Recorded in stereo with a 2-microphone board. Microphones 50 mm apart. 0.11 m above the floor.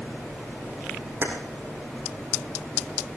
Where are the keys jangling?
55° right (ahead or behind), 4 m.